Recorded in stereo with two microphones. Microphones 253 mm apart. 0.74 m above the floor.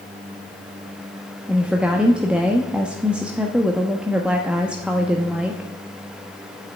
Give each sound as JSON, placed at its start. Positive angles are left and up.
{"t": 1.5, "sound": "a woman speaking", "side_deg": -5, "distance_m": 1.0}